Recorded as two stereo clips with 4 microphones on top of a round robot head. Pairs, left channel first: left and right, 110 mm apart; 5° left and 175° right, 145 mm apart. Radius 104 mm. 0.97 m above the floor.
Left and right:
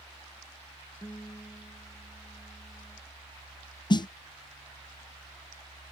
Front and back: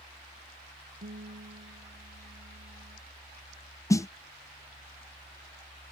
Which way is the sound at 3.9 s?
65° left.